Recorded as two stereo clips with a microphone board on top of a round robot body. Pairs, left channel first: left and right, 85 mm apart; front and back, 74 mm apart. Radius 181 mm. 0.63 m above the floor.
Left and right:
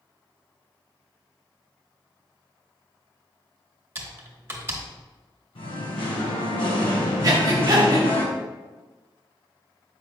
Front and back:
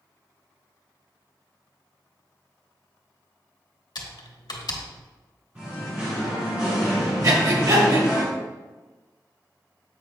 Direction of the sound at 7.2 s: 140° right.